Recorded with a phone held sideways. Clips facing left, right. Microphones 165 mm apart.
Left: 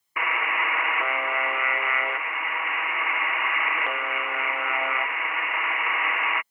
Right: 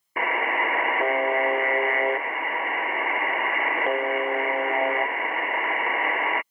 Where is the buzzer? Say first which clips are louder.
Right 4 dB; 40° right (ahead or behind).